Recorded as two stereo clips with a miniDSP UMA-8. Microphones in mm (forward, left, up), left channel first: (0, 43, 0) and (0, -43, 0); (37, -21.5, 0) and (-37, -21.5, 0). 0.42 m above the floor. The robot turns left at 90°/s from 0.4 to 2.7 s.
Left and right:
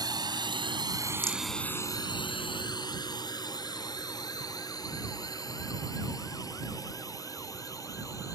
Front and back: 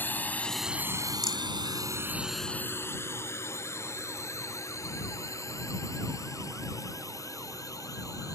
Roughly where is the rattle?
Ahead.